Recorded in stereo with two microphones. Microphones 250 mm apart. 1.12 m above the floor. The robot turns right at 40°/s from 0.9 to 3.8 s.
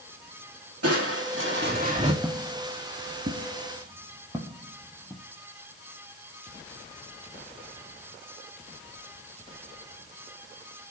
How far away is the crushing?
About 1.8 m.